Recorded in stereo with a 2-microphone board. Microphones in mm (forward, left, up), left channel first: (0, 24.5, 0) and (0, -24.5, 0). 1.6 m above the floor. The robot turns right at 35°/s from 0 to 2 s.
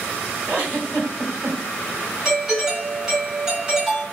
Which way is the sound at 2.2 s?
10° right (ahead or behind).